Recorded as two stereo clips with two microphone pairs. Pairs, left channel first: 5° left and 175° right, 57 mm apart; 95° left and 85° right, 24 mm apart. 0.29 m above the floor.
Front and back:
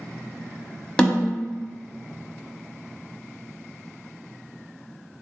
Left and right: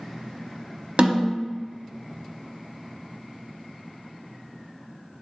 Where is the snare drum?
65° right, 0.8 m.